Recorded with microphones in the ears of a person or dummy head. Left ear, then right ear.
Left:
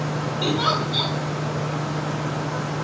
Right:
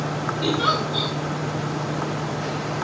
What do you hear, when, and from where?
0.4 s a giggle: 40° left (ahead or behind), 8 m